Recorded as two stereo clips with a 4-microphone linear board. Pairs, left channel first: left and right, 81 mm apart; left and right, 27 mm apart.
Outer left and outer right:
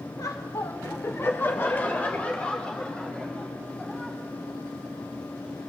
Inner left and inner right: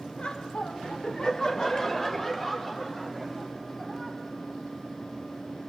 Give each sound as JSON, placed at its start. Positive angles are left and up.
{"t": 0.2, "sound": "laughter", "side_deg": 45, "distance_m": 1.5}